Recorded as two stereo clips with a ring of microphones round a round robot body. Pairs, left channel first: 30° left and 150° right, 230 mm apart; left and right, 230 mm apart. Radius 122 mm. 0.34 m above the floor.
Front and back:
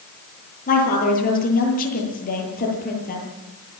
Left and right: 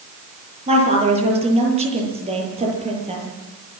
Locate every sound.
0.7 s a woman speaking: 25° right, 9.5 m